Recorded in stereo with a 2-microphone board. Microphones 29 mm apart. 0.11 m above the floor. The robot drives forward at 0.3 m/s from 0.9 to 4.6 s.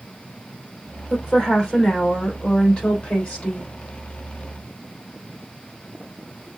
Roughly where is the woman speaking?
Left.